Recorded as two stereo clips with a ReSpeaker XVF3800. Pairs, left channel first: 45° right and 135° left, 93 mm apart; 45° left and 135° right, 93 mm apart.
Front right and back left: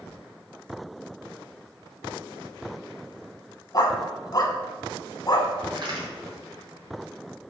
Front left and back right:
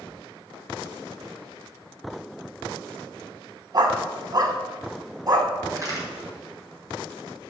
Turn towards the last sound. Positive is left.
turn(degrees=170)